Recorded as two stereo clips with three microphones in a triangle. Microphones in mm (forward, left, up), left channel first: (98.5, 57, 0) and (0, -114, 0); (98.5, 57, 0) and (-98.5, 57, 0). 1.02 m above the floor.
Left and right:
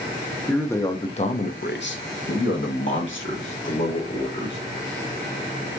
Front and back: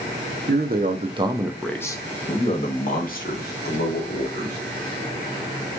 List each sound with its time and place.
0.5 s a man speaking: 145° left, 0.9 m; by 4.6 s 30° left, 2.5 m